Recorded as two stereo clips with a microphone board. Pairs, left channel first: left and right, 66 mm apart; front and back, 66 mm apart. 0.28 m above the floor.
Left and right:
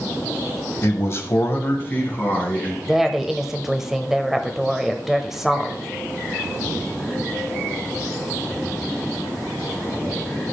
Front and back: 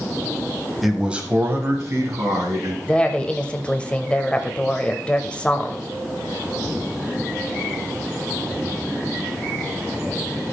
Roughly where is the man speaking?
Left.